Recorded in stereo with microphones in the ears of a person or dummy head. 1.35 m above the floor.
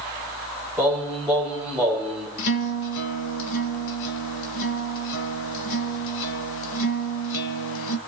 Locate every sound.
0.8 s singing: centre (ahead or behind), 6 m
2.4 s a guitar: 75° left (ahead or behind), 2.0 m